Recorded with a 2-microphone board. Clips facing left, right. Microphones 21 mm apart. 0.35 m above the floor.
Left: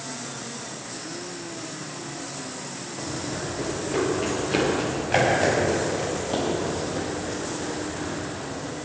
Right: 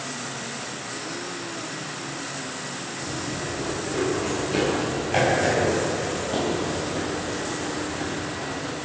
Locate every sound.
3.0 s running footsteps: 45° left (ahead or behind), 5.5 m; by 8.7 s 10° left (ahead or behind), 7.5 m